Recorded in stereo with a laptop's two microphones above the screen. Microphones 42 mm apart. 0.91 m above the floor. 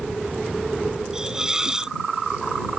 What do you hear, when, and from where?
1.1 s a hiss: 15° right (ahead or behind)